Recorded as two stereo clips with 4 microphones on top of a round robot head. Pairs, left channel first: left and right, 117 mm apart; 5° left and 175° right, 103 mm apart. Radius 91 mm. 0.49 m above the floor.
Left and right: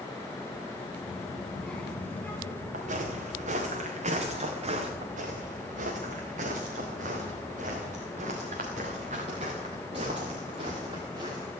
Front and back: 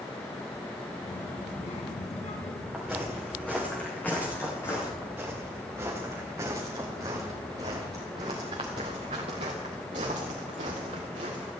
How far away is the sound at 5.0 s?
About 3.5 m.